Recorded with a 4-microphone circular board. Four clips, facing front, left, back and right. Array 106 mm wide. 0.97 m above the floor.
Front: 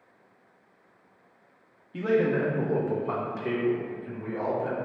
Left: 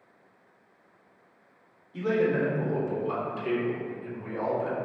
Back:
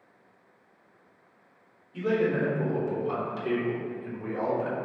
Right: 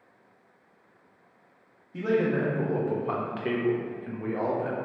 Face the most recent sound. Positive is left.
turn(degrees=-125)